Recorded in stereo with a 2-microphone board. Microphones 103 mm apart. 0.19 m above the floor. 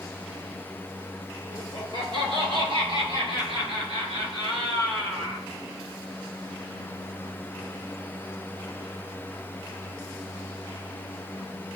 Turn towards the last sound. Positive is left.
turn(degrees=-70)  # may be behind; listen again after turning